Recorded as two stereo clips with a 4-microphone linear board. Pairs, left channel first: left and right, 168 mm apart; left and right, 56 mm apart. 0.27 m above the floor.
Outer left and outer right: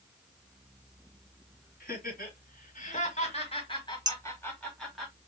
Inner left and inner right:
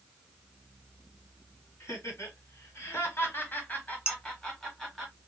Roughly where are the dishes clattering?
Right.